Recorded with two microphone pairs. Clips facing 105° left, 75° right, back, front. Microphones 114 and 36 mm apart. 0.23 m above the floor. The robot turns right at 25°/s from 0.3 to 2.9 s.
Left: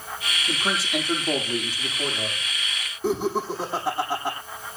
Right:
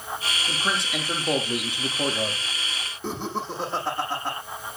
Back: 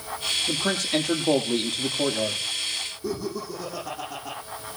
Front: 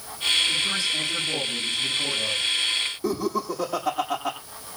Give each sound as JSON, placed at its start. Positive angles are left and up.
{"t": 0.5, "sound": "a man speaking", "azimuth_deg": -175, "distance_m": 7.0}
{"t": 3.0, "sound": "laughter", "azimuth_deg": 20, "distance_m": 9.5}